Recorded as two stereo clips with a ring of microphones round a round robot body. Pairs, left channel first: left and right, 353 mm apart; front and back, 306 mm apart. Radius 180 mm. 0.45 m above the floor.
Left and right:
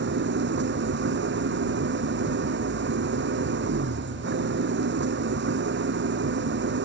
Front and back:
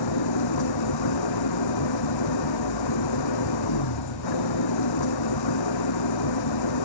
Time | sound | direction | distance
0.0 | an engine running | 30° right | ?